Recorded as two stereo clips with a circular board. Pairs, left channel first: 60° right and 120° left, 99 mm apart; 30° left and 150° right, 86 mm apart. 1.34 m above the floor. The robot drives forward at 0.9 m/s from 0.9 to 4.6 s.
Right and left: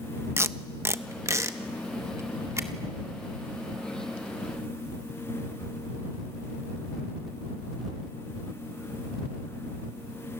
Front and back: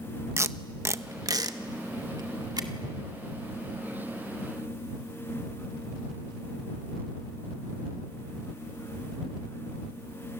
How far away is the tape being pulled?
About 0.6 m.